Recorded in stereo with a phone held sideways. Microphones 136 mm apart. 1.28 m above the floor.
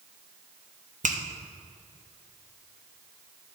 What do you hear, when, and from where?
1.0 s a finger snap: 65° right (ahead or behind), 0.8 m